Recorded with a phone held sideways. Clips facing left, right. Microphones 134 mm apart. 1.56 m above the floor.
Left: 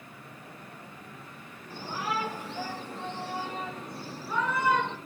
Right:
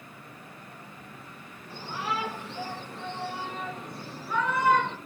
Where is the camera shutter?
No camera shutter in this recording.